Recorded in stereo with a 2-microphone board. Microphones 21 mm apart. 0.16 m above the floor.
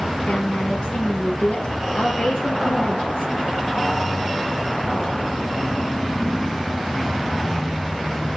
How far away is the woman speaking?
About 3.5 m.